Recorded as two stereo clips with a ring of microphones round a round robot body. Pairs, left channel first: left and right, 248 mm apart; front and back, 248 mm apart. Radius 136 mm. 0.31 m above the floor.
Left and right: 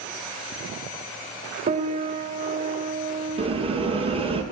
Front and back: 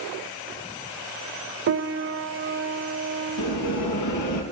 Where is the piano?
150° right, 0.5 m.